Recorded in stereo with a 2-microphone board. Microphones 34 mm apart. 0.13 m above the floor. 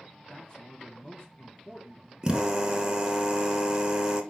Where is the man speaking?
30° left (ahead or behind), 1.4 m.